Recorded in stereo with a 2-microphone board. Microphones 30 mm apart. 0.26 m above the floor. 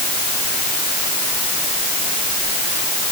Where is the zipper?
No zipper in this recording.